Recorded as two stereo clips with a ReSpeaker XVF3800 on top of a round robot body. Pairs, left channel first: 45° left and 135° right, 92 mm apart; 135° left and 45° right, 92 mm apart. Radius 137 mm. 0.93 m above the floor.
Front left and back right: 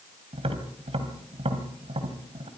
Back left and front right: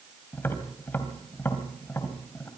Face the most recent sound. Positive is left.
turn(degrees=-155)